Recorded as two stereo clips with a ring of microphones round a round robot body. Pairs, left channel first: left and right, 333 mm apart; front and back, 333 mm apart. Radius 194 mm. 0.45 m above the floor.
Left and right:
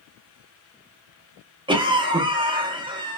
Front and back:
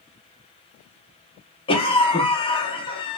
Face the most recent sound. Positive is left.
turn(degrees=-40)